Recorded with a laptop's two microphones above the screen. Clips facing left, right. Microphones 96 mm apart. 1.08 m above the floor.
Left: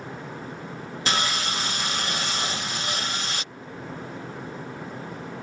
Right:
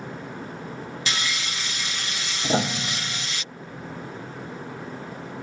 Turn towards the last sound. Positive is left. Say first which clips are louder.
# right 6 dB
turn(degrees=-85)